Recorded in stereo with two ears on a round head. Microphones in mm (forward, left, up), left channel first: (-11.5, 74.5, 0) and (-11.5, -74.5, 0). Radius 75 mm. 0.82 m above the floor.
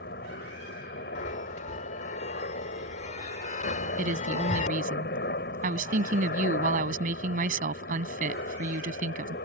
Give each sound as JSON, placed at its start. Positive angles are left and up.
{"t": 0.0, "sound": "a helicopter", "side_deg": 65}
{"t": 1.1, "sound": "a chime", "side_deg": 50}
{"t": 4.0, "sound": "a woman speaking", "side_deg": -55}